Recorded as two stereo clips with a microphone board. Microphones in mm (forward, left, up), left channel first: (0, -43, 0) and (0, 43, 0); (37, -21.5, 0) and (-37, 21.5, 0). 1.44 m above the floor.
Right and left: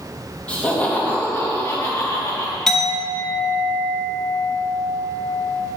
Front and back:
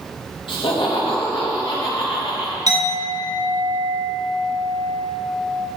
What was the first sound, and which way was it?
Laughter, 15° right.